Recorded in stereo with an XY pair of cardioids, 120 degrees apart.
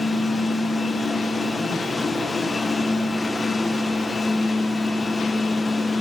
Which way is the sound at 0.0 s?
20° left.